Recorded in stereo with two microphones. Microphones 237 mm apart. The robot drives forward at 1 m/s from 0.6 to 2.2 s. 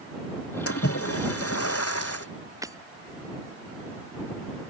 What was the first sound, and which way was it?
A splash, 65° left (ahead or behind).